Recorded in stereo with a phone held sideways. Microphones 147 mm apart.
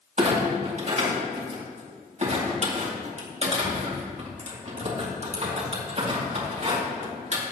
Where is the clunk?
45° right (ahead or behind), 2.5 m.